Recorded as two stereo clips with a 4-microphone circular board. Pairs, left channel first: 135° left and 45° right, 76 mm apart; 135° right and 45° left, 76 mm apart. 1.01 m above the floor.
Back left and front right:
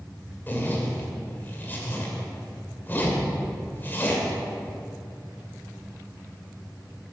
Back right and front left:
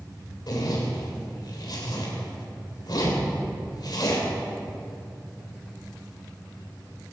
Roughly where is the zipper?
Behind.